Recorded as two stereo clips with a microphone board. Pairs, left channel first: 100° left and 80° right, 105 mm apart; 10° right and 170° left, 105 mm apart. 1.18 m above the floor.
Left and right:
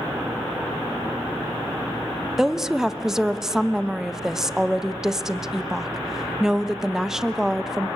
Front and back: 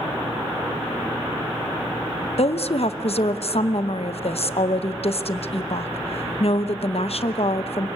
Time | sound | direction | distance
2.4 | a woman speaking | 5° left | 0.8 m